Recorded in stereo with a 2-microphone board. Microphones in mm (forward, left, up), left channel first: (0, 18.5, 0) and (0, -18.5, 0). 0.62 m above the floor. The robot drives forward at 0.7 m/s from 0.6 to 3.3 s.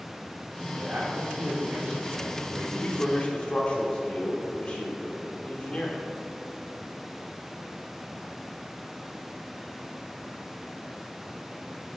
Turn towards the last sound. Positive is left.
turn(degrees=30)  # may be behind; listen again after turning